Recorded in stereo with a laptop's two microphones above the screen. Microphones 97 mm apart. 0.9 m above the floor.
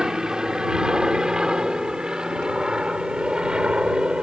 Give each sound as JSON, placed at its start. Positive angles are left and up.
{"t": 0.0, "sound": "an aircraft", "side_deg": -5}